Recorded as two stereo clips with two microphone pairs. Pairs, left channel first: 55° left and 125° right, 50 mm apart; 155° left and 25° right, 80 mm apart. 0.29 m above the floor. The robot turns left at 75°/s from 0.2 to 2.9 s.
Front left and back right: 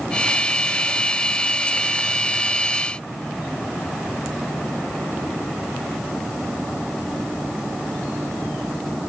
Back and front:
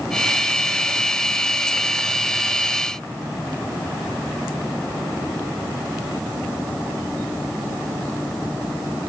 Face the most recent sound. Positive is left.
No sound to turn to.